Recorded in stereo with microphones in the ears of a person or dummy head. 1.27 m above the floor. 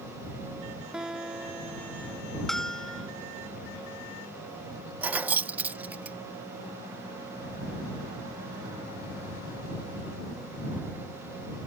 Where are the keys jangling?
10° right (ahead or behind).